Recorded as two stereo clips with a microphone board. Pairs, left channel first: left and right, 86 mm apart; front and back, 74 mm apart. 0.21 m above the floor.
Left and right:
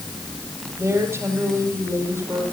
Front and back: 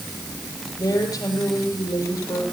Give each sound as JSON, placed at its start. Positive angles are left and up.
{"t": 0.8, "sound": "a woman speaking", "azimuth_deg": -30, "distance_m": 7.5}